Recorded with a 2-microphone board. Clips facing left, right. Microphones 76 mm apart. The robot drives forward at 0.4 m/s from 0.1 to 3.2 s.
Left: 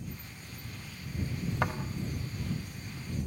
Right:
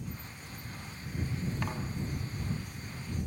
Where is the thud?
80° left, 4.5 m.